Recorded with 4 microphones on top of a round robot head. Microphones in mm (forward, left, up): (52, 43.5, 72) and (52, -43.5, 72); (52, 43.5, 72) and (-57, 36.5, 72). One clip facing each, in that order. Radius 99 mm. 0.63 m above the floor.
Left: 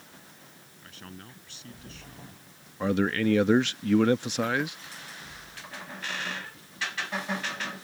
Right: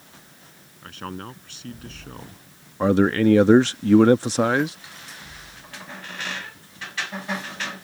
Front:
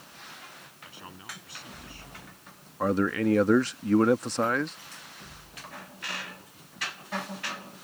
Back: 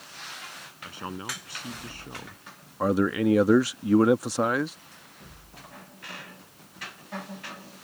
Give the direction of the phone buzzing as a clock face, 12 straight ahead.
I don't hear a phone buzzing.